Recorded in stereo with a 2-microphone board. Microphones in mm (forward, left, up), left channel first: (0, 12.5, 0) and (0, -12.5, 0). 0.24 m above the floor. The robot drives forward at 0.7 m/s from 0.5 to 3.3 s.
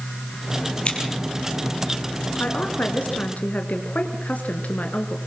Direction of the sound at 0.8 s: 50° left (ahead or behind).